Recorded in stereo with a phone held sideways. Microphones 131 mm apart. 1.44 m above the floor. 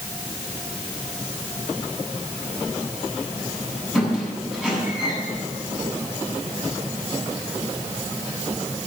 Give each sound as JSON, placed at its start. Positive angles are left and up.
{"t": 4.0, "sound": "a squeak", "side_deg": -5, "distance_m": 8.5}